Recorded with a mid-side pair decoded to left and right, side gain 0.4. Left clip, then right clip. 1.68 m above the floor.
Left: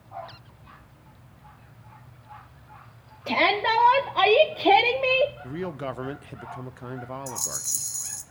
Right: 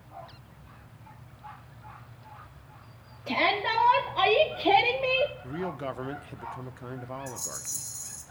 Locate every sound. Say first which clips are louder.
3.3 s a shout: left 4 dB; 55° left, 1.8 m; by 5.3 s 30° left, 0.6 m
5.4 s a man speaking: left 2 dB; 25° left, 0.6 m
7.3 s a rattle: left 6 dB; 65° left, 1.1 m